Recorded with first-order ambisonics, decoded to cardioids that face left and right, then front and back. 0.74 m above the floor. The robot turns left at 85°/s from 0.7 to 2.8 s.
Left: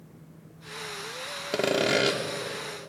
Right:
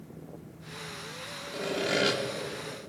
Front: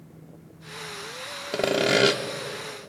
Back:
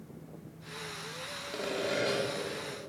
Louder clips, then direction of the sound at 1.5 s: Left 5 dB, front 11 dB; 50° left.